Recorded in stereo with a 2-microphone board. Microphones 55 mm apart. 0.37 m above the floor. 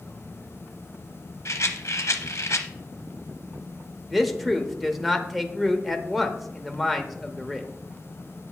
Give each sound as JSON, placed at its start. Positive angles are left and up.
{"t": 1.4, "sound": "a rattle", "side_deg": 60, "distance_m": 0.8}
{"t": 4.1, "sound": "a man speaking", "side_deg": 0, "distance_m": 0.8}